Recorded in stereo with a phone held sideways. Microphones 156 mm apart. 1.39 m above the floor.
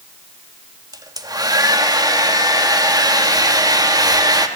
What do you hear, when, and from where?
0.9 s a hair dryer: 25° right (ahead or behind), 1.5 m